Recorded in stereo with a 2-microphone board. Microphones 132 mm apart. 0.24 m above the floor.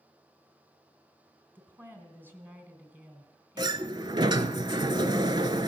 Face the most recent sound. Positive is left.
turn(degrees=-35)  # may be behind; listen again after turning